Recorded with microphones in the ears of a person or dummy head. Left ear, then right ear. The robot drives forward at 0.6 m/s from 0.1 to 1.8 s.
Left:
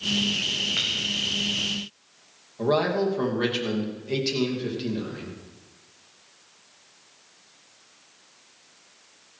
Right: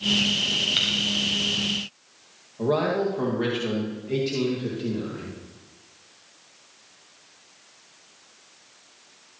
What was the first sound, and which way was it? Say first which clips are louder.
Breaking glass: right 3 dB; 5° right (ahead or behind).